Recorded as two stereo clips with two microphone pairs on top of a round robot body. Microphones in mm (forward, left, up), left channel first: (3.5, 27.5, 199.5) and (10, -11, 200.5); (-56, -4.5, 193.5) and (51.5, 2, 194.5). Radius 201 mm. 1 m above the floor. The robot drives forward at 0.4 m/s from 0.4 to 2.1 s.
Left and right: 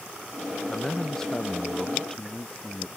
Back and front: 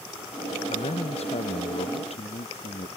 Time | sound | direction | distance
0.7 | a man speaking | 175° left | ?